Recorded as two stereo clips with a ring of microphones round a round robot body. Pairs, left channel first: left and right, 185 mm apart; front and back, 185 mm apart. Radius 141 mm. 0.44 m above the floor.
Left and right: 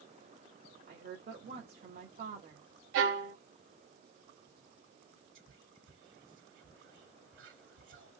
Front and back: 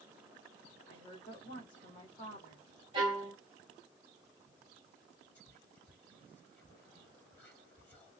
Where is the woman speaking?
65° right, 2 m.